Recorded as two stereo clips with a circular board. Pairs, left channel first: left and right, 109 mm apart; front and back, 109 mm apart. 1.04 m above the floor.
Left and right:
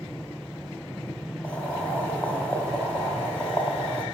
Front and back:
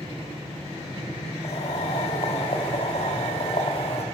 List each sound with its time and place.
1.4 s boiling: 15° left, 3 m